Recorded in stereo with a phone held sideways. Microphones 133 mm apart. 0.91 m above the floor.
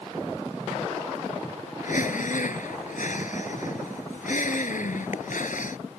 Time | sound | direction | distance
1.8 | breathing | 80° left | ?